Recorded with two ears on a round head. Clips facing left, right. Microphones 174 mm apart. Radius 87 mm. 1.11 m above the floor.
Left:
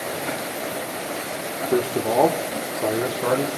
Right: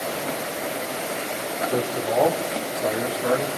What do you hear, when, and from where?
1.7 s a man speaking: 80° left, 2.5 m